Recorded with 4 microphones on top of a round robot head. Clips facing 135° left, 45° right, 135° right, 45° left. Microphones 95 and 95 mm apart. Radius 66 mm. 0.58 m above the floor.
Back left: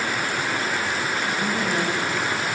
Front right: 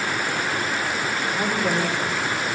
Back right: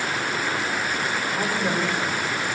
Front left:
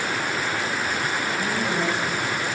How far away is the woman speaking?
About 3 m.